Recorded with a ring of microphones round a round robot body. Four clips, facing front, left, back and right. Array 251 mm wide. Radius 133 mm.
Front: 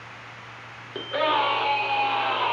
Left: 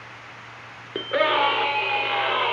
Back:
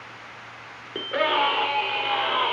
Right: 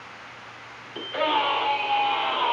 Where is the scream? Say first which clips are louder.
Left 3 dB, even; 110° left, 2.5 m; by 2.5 s 115° left, 3.5 m.